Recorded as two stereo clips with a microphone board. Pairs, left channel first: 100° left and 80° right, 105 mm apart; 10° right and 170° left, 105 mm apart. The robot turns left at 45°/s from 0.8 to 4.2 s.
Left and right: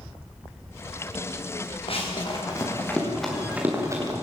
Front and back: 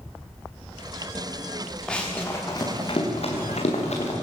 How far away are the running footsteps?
About 8 m.